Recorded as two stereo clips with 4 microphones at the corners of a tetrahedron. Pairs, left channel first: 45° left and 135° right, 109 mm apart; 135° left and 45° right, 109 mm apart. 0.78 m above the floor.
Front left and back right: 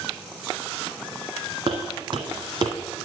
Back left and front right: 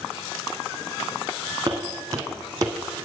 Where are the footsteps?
105° right, 2.5 m; by 3.0 s 100° right, 1.6 m.